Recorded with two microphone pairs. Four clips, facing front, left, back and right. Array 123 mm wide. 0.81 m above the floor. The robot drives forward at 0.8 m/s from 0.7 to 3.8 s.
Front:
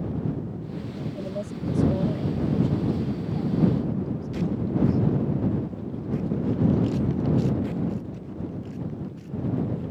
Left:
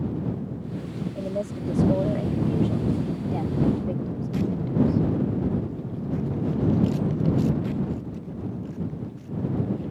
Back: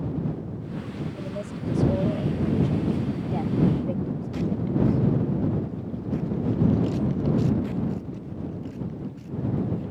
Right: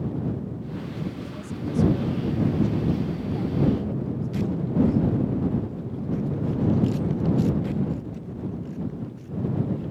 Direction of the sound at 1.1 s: 80° left.